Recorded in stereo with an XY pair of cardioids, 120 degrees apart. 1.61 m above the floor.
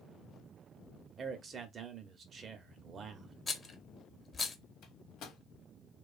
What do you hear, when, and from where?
1.2 s a man speaking: 45° right, 0.7 m
3.5 s a rattle: 25° left, 0.5 m
4.8 s a microwave: 70° left, 1.0 m